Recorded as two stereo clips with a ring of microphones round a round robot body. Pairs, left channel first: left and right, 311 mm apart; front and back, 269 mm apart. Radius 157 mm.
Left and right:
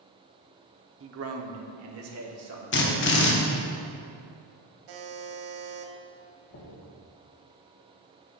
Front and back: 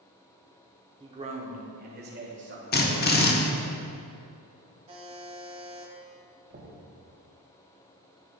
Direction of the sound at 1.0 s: 110° right.